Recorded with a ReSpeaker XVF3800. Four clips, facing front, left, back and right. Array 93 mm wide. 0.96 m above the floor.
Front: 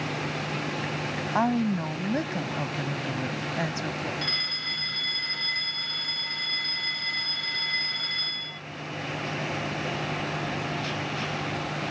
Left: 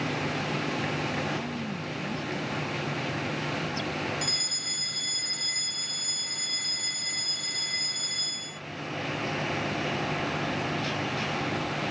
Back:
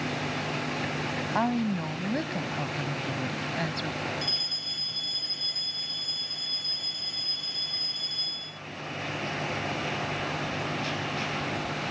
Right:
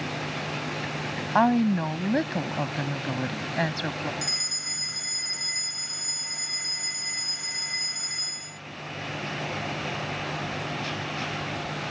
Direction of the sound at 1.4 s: 70° right.